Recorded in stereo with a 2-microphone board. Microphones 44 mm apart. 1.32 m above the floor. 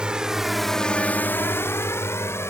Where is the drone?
20° right (ahead or behind); by 2.5 s 80° left.